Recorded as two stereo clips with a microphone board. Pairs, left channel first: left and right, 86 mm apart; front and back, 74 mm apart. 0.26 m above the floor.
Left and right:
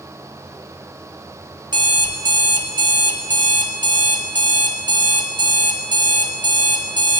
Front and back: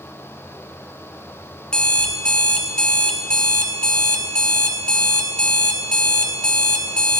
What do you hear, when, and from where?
1.7 s an alarm clock: 75° right, 1.3 m